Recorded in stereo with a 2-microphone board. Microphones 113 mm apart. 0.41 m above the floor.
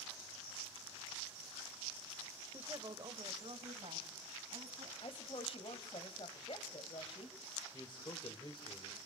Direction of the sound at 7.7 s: 45° left (ahead or behind).